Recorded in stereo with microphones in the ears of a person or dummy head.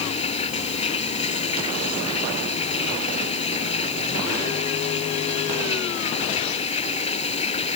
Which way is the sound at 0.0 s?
35° left (ahead or behind).